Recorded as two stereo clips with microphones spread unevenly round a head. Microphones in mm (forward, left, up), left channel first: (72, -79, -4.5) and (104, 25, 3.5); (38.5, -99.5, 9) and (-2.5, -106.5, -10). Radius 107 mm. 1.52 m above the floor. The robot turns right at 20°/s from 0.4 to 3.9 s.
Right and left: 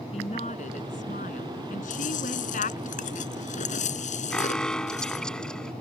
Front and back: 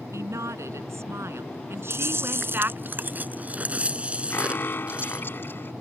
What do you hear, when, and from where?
0.1 s a woman speaking: 170° right; by 2.9 s 120° right
1.9 s chewing: 145° right; by 5.3 s 105° right
4.3 s an alarm: 25° right